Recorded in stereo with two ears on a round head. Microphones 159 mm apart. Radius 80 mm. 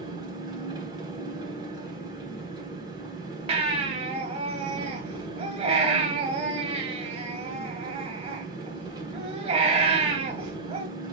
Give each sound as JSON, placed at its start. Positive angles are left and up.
{"t": 0.0, "sound": "an engine running", "side_deg": -25, "distance_m": 3.5}
{"t": 3.5, "sound": "a baby crying", "side_deg": -35, "distance_m": 2.0}